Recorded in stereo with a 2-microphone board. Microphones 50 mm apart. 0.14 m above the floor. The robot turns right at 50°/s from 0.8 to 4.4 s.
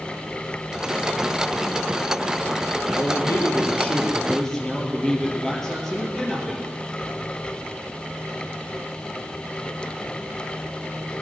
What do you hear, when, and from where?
2.9 s a man speaking: 95° left, 3.5 m; by 6.7 s 170° left, 3.5 m